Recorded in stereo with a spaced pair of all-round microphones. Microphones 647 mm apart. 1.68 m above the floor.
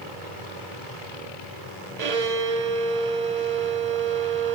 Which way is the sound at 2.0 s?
75° right (ahead or behind).